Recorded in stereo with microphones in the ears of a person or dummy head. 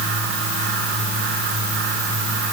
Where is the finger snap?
I don't hear a finger snap.